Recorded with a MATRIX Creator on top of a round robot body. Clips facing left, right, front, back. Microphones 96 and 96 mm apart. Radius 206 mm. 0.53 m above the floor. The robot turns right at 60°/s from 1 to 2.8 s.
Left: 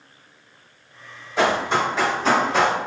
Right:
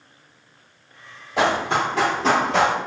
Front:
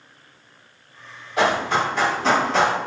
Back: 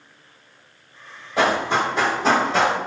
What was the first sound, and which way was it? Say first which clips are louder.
Running footsteps: even, even; 120° right.